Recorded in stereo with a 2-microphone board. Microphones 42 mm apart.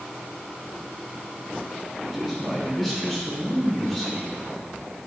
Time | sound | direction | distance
2.0 | a man speaking | 5° left (ahead or behind) | 3 m